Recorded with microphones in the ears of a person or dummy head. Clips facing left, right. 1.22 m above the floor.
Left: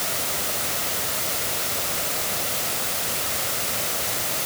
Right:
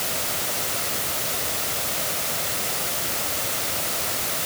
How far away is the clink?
No clink in this recording.